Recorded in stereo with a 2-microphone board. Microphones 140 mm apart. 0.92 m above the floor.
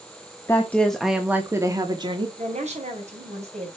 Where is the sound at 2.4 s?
55° right (ahead or behind), 5 m.